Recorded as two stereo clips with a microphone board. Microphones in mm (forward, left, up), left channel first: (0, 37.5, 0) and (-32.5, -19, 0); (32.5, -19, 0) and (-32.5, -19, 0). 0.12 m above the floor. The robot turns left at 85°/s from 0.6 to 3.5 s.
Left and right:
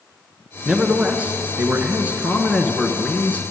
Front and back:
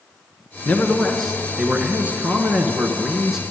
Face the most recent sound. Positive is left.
turn(degrees=90)